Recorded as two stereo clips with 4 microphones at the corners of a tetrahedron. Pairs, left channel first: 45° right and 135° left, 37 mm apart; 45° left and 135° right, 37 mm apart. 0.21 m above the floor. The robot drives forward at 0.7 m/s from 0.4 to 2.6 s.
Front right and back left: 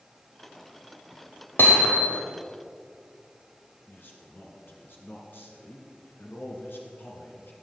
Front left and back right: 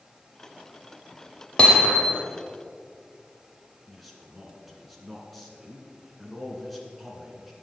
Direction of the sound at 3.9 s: 45° right.